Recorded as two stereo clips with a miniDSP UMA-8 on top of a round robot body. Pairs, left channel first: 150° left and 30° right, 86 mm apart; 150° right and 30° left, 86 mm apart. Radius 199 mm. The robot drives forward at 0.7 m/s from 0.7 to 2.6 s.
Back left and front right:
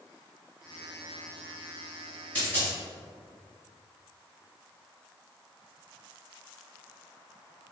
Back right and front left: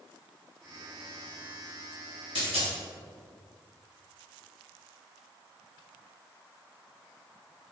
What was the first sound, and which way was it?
A dropped coin, 135° right.